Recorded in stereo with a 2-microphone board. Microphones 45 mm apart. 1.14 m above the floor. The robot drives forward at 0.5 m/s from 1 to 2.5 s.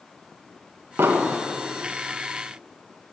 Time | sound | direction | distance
1.0 | an explosion | 65° right (ahead or behind) | 1.4 m